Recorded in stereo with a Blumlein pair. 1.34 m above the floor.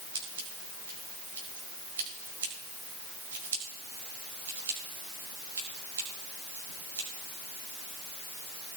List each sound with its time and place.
0.1 s scissors: 65° right, 4.5 m